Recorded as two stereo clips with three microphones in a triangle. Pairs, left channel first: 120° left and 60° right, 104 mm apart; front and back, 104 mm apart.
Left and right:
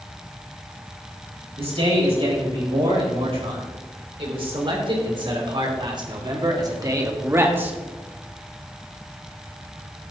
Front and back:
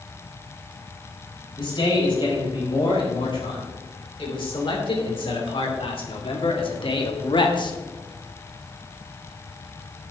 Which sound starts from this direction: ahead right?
A man speaking, at 1.6 s.